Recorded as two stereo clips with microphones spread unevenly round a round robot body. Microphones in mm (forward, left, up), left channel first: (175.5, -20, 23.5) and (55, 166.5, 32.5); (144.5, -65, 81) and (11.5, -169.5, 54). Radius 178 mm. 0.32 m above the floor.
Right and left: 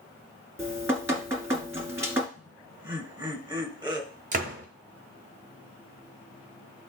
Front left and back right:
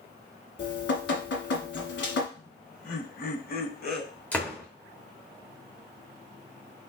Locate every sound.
0.6 s dripping: 45° left, 1.7 m
2.4 s laughter: 55° left, 1.5 m
4.3 s a door slam: 130° left, 0.9 m